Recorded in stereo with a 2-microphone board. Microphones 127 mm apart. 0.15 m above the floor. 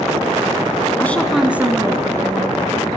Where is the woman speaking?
15° left (ahead or behind), 1.0 m; by 3.0 s 35° right (ahead or behind), 3 m.